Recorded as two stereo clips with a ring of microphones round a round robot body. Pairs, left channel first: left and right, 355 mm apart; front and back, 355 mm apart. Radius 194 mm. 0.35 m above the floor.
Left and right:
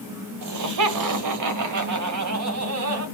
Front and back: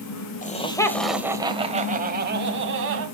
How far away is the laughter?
About 1.5 m.